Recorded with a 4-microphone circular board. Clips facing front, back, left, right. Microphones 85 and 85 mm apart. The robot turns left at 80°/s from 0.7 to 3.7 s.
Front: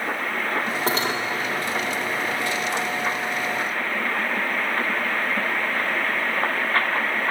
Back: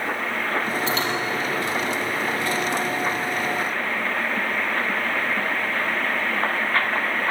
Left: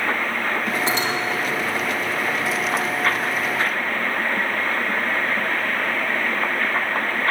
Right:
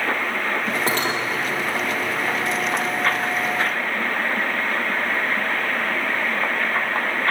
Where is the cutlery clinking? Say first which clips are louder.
Even, even; 50° right, 4.5 m; by 1.2 s 75° right, 4.5 m.